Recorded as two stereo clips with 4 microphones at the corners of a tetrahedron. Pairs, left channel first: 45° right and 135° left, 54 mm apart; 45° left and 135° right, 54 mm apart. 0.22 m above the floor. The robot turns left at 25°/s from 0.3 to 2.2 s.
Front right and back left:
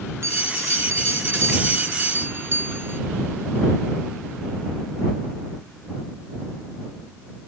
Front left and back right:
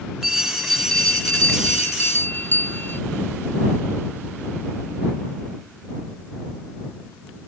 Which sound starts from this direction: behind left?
A bell, at 0.2 s.